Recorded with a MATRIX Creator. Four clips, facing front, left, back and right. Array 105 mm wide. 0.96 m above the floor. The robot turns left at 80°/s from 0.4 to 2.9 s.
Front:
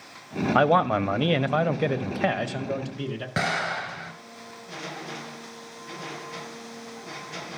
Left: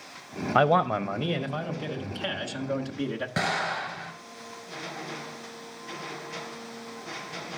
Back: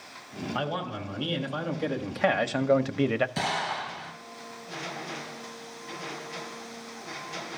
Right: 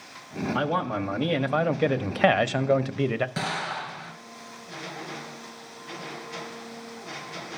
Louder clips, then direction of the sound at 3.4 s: Left 2 dB, front 2 dB; 15° left.